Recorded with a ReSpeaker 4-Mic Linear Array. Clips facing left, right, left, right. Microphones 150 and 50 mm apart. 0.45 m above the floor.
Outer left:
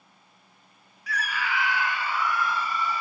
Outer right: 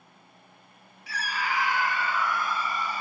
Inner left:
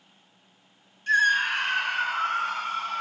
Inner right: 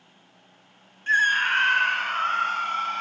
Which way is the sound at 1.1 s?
25° right (ahead or behind).